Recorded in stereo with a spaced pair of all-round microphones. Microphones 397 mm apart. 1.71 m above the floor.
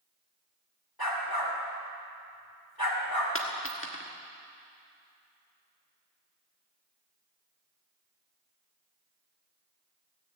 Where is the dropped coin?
30° left (ahead or behind), 1.3 m.